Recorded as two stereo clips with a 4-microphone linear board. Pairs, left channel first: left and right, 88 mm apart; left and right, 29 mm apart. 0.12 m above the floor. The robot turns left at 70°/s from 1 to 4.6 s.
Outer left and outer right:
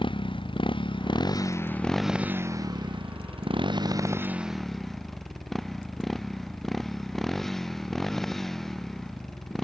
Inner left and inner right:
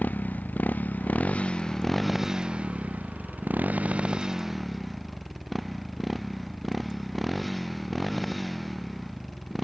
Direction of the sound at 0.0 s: 70° left (ahead or behind).